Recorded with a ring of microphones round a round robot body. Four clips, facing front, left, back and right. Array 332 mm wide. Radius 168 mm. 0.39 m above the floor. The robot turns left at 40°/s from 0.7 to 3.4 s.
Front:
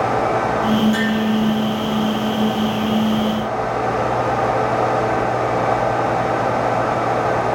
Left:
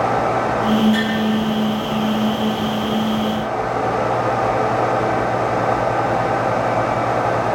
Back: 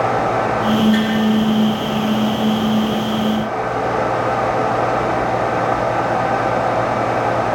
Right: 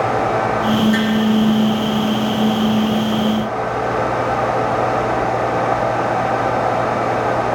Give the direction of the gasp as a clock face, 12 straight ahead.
I don't hear a gasp.